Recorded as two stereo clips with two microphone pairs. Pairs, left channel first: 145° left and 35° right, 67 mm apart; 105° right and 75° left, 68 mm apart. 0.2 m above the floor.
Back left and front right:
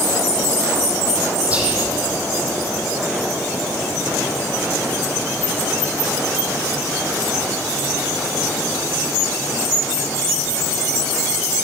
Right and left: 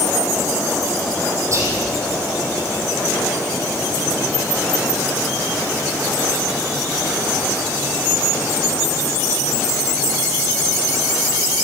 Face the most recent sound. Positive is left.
turn(degrees=35)